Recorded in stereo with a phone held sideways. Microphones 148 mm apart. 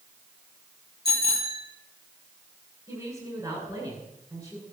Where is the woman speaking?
25° right (ahead or behind), 8 m.